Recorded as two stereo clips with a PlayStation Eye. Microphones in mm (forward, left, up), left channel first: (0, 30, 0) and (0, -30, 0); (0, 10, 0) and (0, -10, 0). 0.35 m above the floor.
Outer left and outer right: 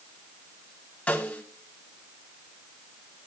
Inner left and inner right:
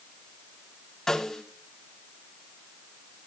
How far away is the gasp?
No gasp in this recording.